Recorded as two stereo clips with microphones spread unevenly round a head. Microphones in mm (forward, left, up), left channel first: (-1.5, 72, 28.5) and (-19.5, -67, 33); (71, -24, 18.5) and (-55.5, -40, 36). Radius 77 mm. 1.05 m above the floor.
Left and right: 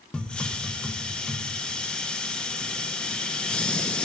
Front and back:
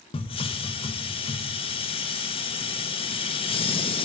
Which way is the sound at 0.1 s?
5° left.